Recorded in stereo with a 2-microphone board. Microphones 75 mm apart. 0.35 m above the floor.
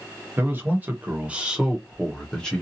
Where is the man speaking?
30° right (ahead or behind), 1.2 m; by 2.6 s 15° left (ahead or behind), 0.9 m.